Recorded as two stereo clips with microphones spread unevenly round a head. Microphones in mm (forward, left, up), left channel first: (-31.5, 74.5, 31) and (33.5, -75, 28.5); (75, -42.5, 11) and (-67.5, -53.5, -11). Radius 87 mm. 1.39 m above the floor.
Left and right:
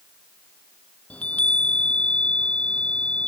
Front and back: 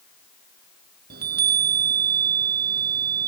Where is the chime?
165° right.